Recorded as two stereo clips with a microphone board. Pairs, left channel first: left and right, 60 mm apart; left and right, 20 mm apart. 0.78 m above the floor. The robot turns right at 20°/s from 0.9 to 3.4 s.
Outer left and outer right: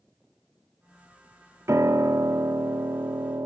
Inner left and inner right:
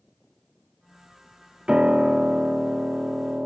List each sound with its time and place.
1.7 s a piano: 125° right, 0.6 m; by 3.5 s 90° right, 0.6 m